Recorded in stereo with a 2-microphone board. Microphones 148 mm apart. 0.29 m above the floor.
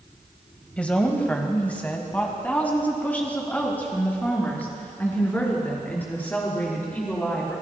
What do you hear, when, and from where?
0.8 s a woman speaking: 10° left (ahead or behind), 1.5 m